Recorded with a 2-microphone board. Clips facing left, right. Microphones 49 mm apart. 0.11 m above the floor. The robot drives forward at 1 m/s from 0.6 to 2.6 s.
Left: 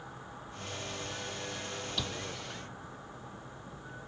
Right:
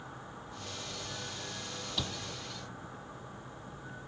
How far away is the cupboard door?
About 1.1 m.